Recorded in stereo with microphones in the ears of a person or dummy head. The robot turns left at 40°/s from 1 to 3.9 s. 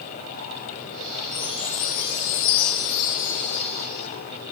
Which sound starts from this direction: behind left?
A chime, at 1.3 s.